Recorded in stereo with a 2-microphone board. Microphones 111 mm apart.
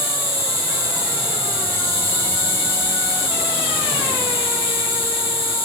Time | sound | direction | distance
0.0 | an insect | 50° left (ahead or behind) | 1.6 m